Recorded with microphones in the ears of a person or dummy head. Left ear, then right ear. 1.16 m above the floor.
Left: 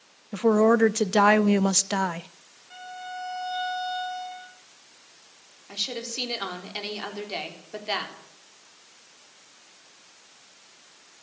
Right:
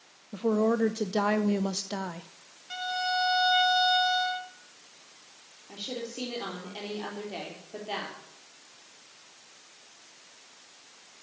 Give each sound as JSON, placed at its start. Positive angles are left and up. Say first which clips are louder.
{"t": 0.3, "sound": "a woman speaking", "louder": "left 7 dB", "side_deg": 50, "distance_m": 0.5}
{"t": 2.7, "sound": "a violin", "louder": "right 8 dB", "side_deg": -70, "distance_m": 1.7}
{"t": 5.7, "sound": "a woman speaking", "louder": "left 6 dB", "side_deg": 55, "distance_m": 3.5}